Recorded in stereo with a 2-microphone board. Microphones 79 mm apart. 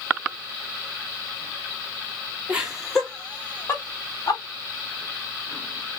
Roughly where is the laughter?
Centre.